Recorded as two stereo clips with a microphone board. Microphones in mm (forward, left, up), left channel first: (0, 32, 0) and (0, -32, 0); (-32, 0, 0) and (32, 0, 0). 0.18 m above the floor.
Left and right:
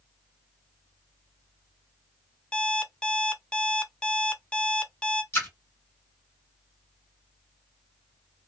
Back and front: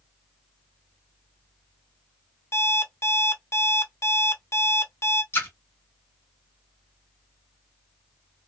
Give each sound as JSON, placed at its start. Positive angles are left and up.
{"t": 2.5, "sound": "an alarm clock", "azimuth_deg": 160, "distance_m": 0.5}
{"t": 5.3, "sound": "a splash", "azimuth_deg": 135, "distance_m": 1.8}